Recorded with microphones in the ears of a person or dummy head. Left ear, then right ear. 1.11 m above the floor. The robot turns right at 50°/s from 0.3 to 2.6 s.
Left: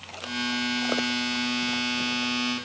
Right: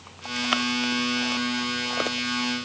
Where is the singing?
I don't hear singing.